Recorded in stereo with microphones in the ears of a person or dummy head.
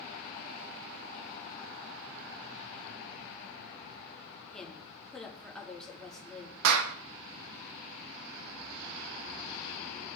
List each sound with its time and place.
4.5 s a woman speaking: 5° left (ahead or behind), 2 m
6.6 s a clap: 75° right (ahead or behind), 0.7 m